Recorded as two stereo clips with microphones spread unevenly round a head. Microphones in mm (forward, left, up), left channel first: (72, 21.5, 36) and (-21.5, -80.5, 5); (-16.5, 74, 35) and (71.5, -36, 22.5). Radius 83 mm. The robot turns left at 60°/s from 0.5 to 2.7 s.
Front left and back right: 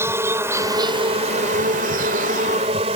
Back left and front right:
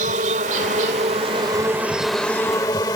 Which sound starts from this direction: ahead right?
An insect, at 0.0 s.